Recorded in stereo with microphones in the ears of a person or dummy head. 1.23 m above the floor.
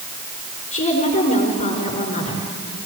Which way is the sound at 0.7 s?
40° left (ahead or behind).